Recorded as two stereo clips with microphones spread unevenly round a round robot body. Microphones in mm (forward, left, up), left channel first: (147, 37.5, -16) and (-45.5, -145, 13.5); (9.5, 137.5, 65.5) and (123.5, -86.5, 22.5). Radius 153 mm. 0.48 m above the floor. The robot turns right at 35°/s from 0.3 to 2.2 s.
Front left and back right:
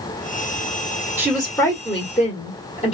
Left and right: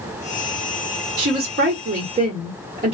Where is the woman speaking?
50° right, 1.3 m; by 2.9 s 15° right, 1.3 m.